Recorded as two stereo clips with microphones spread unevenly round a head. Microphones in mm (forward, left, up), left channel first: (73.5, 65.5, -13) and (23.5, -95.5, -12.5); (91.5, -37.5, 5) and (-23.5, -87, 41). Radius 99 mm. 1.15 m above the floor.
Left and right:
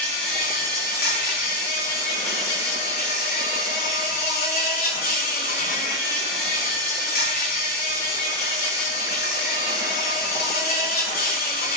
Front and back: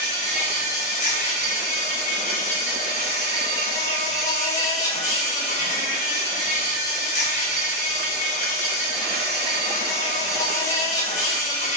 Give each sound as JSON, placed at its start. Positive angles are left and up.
{"t": 0.0, "sound": "an insect", "azimuth_deg": 45, "distance_m": 4.5}